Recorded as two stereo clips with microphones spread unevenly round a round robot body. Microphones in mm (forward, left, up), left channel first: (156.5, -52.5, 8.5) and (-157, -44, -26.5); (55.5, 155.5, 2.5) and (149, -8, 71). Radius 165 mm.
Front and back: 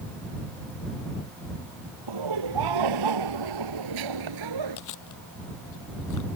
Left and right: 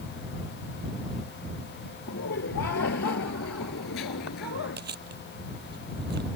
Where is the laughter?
160° left; by 4.8 s 155° left.